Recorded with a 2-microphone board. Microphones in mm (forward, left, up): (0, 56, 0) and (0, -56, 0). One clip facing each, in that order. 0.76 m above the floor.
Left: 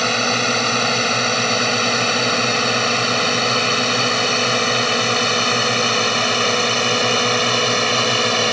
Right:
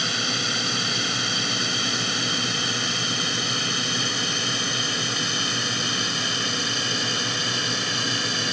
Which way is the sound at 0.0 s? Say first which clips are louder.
Left 10 dB; 65° left (ahead or behind).